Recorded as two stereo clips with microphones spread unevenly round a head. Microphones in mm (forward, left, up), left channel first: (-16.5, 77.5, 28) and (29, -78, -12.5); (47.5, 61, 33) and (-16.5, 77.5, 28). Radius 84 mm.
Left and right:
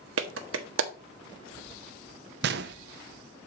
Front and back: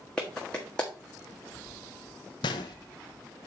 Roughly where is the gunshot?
Ahead right.